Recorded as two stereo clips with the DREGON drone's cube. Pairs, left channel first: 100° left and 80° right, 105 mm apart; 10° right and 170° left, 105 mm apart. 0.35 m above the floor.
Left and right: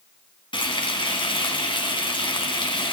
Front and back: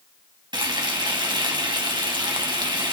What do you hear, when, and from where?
0.5 s frying: 130° left, 2 m